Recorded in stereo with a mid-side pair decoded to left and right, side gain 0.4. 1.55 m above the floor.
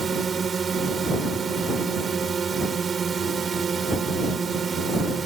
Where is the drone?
45° right.